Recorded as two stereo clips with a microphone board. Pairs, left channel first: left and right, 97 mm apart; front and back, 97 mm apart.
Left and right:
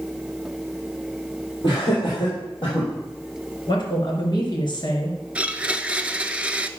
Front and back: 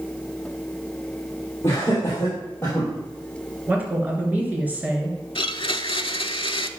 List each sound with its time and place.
1.6 s laughter: 50° left, 4 m; by 2.9 s 60° left, 4 m
3.7 s a woman speaking: 110° left, 3 m
5.3 s a blender: 15° right, 0.6 m